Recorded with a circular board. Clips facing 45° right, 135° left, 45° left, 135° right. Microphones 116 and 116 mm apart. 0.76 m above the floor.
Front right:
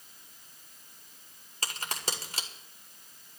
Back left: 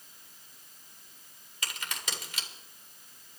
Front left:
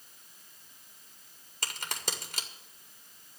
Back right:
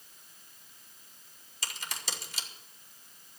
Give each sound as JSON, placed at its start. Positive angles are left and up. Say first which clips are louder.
{"t": 1.6, "sound": "a crack", "louder": "front right 3 dB, front left 3 dB", "azimuth_deg": 10, "distance_m": 2.0}